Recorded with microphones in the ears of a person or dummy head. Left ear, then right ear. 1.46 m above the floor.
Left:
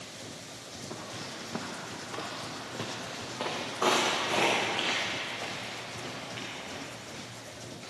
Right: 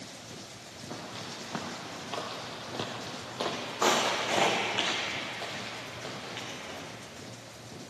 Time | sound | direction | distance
0.9 | footsteps | 10° right (ahead or behind) | 1.7 m